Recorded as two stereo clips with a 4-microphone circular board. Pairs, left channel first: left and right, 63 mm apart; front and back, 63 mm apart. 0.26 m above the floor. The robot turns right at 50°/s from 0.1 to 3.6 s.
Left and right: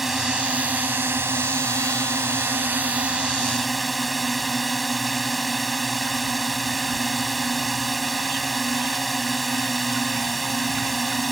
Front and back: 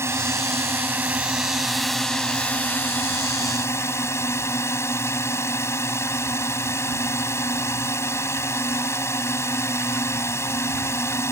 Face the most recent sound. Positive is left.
turn(degrees=0)